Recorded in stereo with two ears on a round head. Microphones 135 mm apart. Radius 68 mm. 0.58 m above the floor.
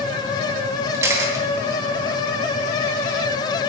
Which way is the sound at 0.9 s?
20° right (ahead or behind).